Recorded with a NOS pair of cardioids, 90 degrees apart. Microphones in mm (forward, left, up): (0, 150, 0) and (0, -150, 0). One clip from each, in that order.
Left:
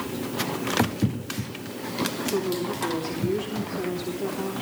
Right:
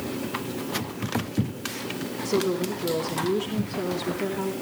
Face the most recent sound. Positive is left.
turn(degrees=-25)